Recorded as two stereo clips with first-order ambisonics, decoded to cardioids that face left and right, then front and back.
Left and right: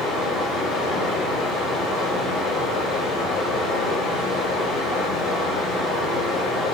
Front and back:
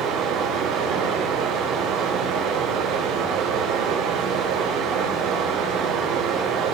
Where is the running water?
150° left, 8 m.